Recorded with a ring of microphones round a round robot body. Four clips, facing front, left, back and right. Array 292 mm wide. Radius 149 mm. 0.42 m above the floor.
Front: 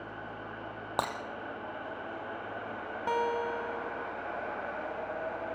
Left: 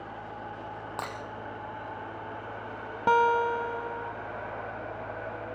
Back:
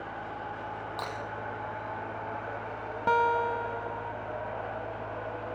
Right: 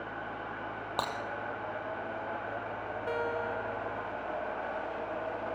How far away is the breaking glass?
About 3.5 m.